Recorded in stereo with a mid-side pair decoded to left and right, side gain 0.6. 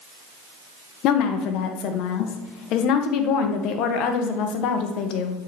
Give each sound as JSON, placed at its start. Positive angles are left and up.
{"t": 1.0, "sound": "a woman speaking", "azimuth_deg": 65, "distance_m": 1.6}